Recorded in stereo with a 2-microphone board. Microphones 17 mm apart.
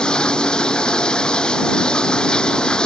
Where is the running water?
70° left (ahead or behind).